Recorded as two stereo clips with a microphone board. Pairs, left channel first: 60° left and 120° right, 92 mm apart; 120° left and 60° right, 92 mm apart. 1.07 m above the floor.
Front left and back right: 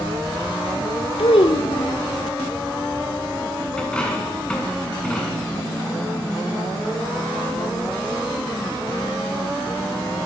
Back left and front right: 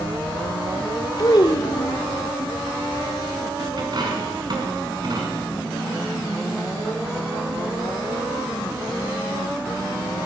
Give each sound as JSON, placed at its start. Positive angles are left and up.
{"t": 1.2, "sound": "a child speaking", "azimuth_deg": 80, "distance_m": 1.6}
{"t": 3.8, "sound": "a dropped coin", "azimuth_deg": -20, "distance_m": 5.0}